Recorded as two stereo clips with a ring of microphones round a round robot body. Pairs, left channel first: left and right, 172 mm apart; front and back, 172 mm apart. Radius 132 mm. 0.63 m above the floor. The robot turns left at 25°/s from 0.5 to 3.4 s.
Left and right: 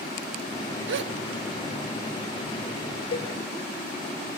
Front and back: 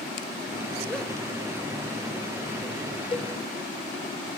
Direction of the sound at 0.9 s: 85° right.